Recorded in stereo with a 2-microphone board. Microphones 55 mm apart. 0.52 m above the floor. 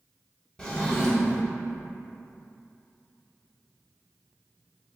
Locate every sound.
0.6 s a drawer: 15° left (ahead or behind), 0.6 m